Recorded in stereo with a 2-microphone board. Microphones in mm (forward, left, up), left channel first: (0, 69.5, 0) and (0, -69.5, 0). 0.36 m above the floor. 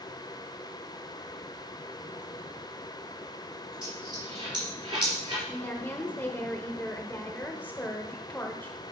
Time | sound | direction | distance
3.8 | a dropped coin | 35° right (ahead or behind) | 4 m
5.5 | a woman speaking | 15° left (ahead or behind) | 1.3 m